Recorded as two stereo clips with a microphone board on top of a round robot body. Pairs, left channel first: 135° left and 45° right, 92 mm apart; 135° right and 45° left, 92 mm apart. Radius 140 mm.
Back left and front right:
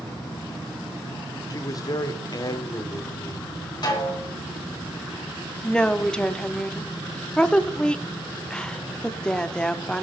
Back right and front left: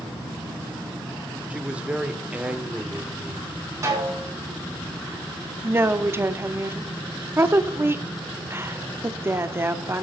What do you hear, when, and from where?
1.5 s a man speaking: 115° left, 1.5 m
3.8 s a snare drum: 95° left, 4 m
5.6 s a woman speaking: 65° left, 1.0 m